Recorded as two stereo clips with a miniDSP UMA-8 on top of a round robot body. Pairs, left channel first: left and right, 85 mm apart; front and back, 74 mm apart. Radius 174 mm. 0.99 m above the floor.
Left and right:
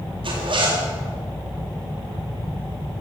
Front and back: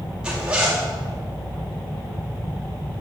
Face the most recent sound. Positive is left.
turn(degrees=-100)